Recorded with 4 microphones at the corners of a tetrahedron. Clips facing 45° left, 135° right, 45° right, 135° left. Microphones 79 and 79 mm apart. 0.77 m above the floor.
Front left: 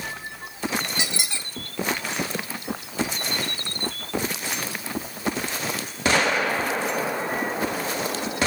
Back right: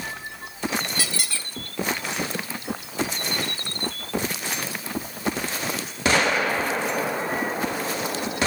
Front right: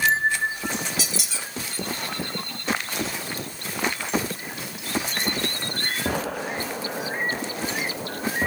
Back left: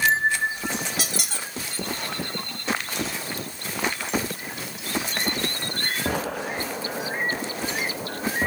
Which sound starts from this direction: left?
A squeak, at 1.0 s.